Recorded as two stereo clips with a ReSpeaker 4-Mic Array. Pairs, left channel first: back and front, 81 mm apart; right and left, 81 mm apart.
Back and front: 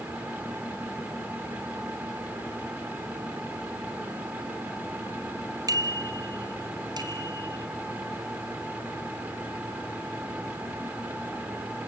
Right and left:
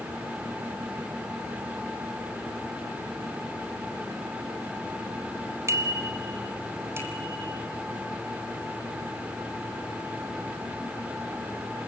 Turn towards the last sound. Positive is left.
turn(degrees=30)